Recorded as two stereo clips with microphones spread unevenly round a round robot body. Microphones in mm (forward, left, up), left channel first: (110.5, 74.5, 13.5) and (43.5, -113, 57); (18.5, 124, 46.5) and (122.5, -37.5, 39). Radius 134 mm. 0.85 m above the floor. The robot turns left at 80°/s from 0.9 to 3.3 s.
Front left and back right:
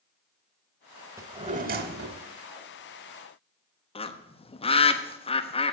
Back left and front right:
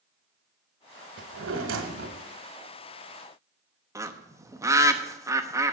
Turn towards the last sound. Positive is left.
turn(degrees=15)